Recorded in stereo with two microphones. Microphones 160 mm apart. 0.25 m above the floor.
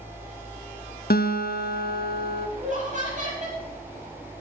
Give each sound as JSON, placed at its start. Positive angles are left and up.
{"t": 1.1, "sound": "a guitar", "side_deg": 70, "distance_m": 1.5}
{"t": 2.6, "sound": "laughter", "side_deg": -50, "distance_m": 8.0}